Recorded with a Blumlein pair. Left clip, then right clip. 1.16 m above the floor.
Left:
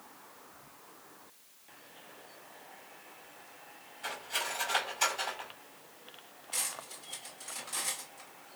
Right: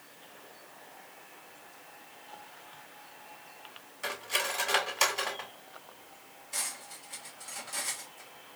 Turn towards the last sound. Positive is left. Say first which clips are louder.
# even
turn(degrees=10)